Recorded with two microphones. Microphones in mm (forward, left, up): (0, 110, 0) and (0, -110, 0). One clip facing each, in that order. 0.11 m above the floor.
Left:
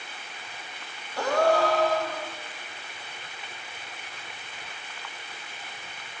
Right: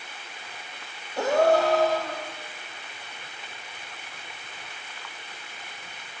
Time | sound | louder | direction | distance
1.2 | a gasp | right 2 dB | 25° right (ahead or behind) | 5 m